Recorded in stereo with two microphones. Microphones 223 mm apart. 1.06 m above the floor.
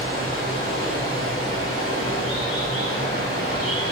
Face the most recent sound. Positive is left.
turn(degrees=-70)  # may be behind; listen again after turning